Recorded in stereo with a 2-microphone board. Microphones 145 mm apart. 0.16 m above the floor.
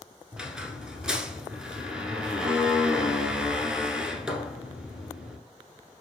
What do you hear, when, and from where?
0.3 s a squeak: 5° right (ahead or behind), 0.7 m